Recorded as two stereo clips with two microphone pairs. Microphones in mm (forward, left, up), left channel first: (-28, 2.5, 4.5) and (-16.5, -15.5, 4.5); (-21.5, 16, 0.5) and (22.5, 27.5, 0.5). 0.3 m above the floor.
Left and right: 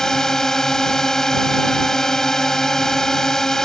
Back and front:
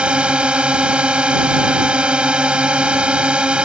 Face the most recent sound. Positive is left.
turn(degrees=70)